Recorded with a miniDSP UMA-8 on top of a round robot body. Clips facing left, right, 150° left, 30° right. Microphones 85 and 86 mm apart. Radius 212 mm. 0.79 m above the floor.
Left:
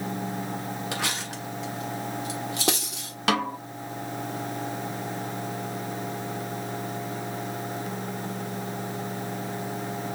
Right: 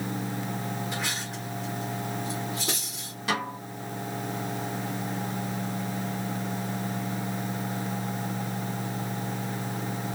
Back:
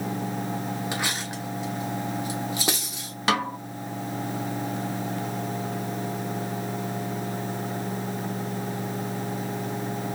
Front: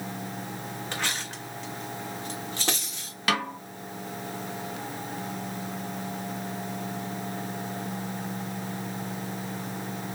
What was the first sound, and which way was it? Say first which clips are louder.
Cutlery clinking: left 2 dB, back 3 dB; 70° left.